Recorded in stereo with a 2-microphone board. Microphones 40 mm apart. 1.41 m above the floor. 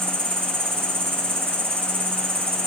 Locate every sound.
0.0 s an insect: 65° right (ahead or behind), 3.5 m